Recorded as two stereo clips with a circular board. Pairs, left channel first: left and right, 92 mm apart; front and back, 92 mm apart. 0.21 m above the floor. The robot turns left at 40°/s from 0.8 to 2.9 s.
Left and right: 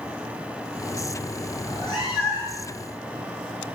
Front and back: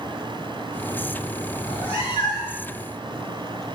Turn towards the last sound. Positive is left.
turn(degrees=-45)